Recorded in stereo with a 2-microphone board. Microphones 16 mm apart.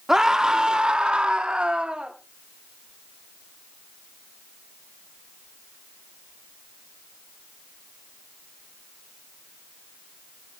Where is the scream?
35° right (ahead or behind), 1.6 m; by 2.1 s 55° right (ahead or behind), 2 m.